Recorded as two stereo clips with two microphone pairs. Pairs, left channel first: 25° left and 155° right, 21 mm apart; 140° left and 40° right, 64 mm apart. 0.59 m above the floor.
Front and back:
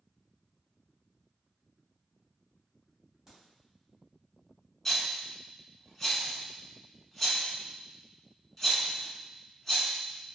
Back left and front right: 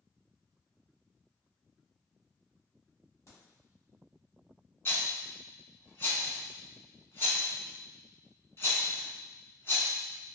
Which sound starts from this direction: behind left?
A crack, at 3.3 s.